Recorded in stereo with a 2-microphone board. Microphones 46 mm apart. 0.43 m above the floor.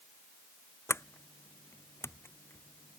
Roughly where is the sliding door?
Left.